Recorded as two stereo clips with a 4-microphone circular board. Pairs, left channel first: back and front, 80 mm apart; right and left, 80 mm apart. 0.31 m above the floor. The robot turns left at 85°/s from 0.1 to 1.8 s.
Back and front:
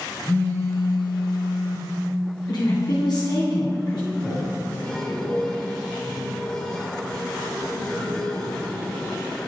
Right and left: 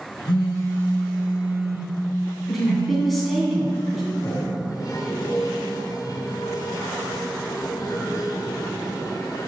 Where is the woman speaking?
Straight behind, 3 m.